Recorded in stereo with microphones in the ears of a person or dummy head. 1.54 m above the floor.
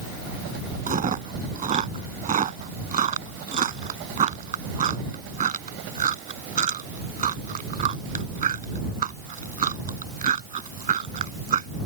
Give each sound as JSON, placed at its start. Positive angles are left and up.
{"t": 0.9, "sound": "chewing", "side_deg": -35}